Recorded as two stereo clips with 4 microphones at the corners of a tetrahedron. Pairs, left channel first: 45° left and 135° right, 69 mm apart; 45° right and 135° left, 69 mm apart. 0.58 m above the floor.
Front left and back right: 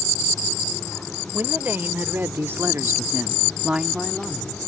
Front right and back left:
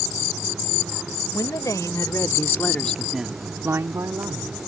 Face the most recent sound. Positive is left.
turn(degrees=135)